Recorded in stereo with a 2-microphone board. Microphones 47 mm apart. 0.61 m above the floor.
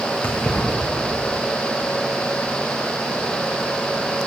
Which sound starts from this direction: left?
Keys jangling, at 0.2 s.